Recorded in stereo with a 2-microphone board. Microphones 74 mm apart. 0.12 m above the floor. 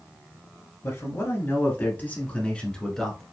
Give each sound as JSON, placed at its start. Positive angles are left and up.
{"t": 0.8, "sound": "a man speaking", "side_deg": 45, "distance_m": 1.7}